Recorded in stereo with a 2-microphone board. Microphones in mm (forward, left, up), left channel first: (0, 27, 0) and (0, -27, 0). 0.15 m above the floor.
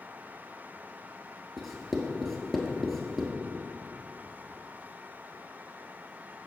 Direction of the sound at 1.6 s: 5° left (ahead or behind).